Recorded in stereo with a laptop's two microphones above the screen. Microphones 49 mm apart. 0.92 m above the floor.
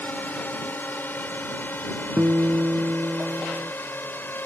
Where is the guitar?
70° right (ahead or behind).